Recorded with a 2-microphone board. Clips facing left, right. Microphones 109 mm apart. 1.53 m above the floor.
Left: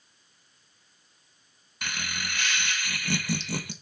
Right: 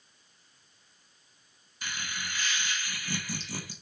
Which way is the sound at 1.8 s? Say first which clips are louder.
Left 3 dB; 75° left (ahead or behind).